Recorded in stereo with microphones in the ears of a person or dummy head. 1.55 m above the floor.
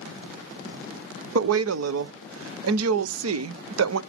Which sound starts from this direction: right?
A woman speaking, at 1.4 s.